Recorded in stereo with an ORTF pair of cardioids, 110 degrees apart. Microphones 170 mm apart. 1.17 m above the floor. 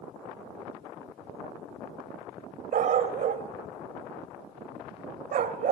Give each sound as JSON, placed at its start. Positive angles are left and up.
{"t": 2.7, "sound": "a dog barking", "azimuth_deg": -55, "distance_m": 2.5}